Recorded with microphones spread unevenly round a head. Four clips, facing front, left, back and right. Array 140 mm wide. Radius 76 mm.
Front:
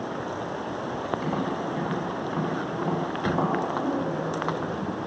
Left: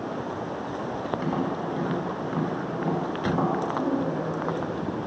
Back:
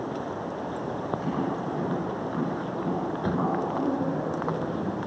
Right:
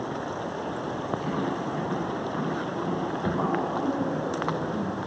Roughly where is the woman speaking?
Left.